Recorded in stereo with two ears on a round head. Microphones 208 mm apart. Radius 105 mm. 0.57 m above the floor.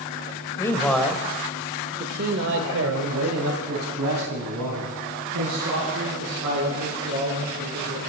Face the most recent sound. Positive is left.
turn(degrees=-75)  # may be behind; listen again after turning